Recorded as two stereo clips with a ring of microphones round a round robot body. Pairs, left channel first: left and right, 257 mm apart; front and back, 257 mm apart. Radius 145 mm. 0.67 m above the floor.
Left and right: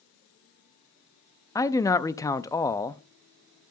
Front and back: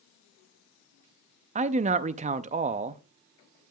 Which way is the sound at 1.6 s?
155° left.